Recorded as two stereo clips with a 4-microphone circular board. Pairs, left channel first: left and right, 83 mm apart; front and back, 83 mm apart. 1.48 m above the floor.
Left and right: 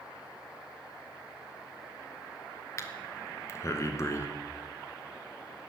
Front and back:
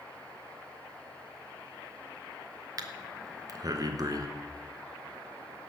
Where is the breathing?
140° left, 1.0 m.